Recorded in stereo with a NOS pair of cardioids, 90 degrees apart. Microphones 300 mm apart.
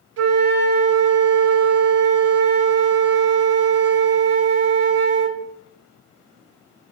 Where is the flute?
50° right, 0.7 m.